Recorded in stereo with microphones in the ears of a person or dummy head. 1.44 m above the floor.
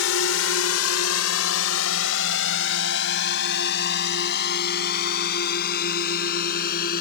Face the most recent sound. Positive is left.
turn(degrees=50)  # may be behind; listen again after turning